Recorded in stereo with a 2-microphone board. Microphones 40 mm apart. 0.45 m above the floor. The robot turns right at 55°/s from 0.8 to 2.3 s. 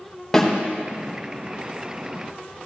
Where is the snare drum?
10° left (ahead or behind), 1.3 m.